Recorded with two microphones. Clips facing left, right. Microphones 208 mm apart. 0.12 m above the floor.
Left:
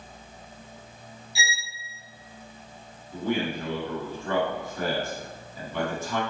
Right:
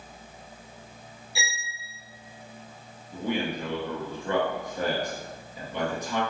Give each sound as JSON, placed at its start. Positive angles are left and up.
{"t": 1.4, "sound": "a violin", "side_deg": -65, "distance_m": 1.2}
{"t": 3.1, "sound": "a man speaking", "side_deg": -20, "distance_m": 1.3}